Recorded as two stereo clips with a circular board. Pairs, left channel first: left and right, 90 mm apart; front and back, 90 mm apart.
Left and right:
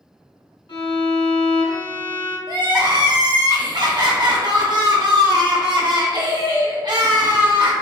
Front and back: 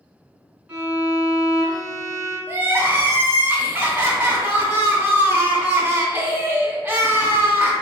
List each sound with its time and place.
0.7 s a violin: 110° left, 1.7 m
2.5 s crying: 120° right, 0.7 m